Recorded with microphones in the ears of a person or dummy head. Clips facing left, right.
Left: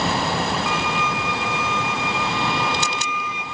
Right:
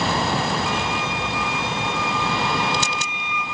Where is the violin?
65° left (ahead or behind), 1.1 m.